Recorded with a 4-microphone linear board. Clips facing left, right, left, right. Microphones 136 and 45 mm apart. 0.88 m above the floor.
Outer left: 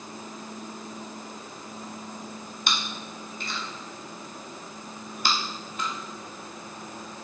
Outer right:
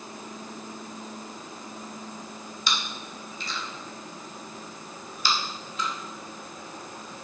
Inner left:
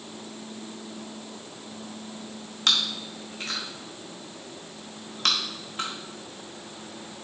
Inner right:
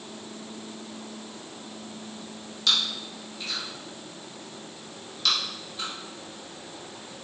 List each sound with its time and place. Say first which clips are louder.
2.7 s chewing: even, inner left 1 dB; 60° left (ahead or behind), 1.3 m